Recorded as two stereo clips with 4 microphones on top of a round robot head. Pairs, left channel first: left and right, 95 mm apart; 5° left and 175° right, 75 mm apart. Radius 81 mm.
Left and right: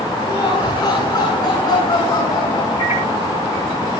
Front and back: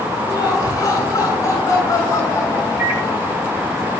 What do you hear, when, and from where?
0.3 s laughter: 45° left, 8.5 m; by 3.4 s 50° left, 10 m
2.8 s a microwave: 125° left, 6.5 m